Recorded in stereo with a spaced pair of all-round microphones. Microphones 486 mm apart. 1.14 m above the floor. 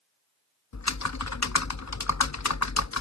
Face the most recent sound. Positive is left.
turn(degrees=35)  # may be behind; listen again after turning